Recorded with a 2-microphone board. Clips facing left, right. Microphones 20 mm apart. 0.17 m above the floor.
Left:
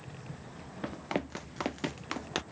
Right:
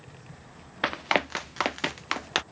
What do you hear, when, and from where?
0.8 s running footsteps: 55° right (ahead or behind); by 2.4 s 30° right (ahead or behind)